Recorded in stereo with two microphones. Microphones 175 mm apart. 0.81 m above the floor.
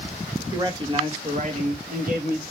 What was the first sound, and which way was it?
A man speaking, 20° right (ahead or behind).